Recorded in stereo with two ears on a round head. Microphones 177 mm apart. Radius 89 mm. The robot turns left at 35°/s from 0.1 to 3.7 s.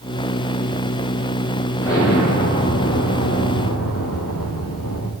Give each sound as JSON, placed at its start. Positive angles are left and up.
{"t": 1.8, "sound": "an explosion", "azimuth_deg": 165, "distance_m": 3.5}